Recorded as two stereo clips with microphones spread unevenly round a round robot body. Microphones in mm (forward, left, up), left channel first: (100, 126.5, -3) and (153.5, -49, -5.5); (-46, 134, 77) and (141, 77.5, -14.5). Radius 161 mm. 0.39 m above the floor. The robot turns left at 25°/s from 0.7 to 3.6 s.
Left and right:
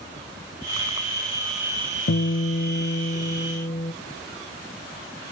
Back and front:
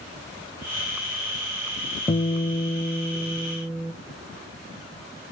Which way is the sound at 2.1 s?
85° left.